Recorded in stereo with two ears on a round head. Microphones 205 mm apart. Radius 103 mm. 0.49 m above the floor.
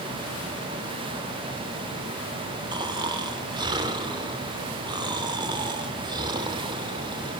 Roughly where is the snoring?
Right.